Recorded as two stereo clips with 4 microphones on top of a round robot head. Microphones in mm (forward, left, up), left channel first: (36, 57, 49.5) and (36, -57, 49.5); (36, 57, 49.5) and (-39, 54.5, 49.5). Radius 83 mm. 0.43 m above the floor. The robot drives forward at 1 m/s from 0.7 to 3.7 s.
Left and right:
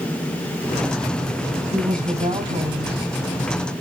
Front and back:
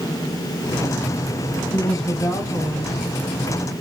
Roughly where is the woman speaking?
Ahead right.